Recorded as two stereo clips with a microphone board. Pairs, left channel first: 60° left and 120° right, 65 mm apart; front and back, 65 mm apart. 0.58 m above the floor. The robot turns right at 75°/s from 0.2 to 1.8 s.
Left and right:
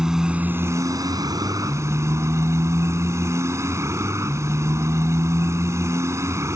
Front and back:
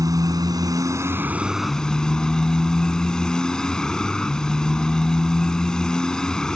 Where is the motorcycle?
160° left; by 6.6 s 80° right.